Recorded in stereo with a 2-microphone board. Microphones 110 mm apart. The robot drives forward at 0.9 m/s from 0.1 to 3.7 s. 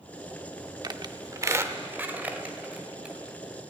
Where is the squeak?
40° right (ahead or behind), 0.6 m; by 3.1 s 10° right (ahead or behind), 2 m.